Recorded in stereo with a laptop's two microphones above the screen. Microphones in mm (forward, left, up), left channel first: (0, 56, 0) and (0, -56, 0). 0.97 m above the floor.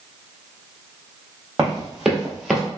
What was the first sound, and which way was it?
Running footsteps, 5° right (ahead or behind).